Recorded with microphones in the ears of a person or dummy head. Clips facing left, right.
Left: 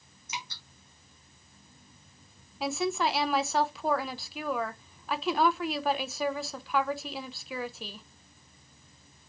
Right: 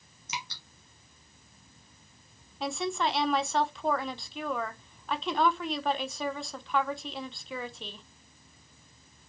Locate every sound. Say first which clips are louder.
0.3 s dripping: right 1 dB; 60° right (ahead or behind), 0.9 m
2.6 s a woman speaking: left 2 dB; 5° left (ahead or behind), 0.5 m